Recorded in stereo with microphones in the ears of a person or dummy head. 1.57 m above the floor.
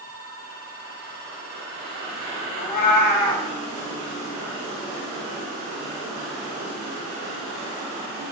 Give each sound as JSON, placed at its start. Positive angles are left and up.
{"t": 2.6, "sound": "a cat meowing", "side_deg": 55, "distance_m": 2.0}